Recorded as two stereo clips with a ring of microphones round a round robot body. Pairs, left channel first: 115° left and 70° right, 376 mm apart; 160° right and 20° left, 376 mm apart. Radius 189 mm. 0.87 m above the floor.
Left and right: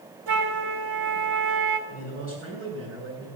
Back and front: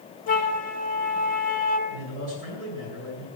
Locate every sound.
0.3 s a flute: 90° right, 1.7 m
1.9 s a man speaking: 10° right, 8.5 m